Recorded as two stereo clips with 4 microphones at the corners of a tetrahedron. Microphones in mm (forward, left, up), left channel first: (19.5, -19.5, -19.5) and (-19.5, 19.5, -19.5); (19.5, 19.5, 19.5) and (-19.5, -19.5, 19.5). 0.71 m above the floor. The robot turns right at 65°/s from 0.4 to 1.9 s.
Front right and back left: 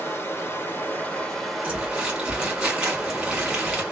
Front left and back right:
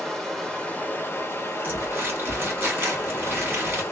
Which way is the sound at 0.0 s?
35° right.